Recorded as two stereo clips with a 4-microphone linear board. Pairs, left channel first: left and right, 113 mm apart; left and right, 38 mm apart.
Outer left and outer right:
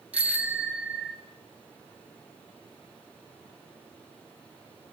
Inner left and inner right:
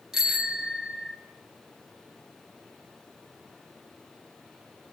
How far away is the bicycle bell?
About 3.5 m.